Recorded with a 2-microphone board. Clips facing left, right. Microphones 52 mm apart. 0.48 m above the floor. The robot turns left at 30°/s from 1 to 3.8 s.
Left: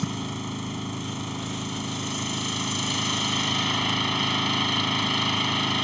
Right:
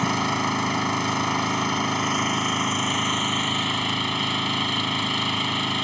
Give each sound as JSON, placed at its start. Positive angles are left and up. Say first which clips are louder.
{"t": 0.0, "sound": "an engine running", "louder": "right 8 dB", "azimuth_deg": -95}